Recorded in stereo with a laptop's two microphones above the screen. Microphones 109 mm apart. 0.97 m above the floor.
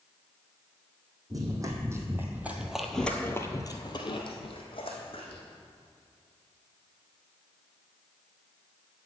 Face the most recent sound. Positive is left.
turn(degrees=55)  # may be behind; listen again after turning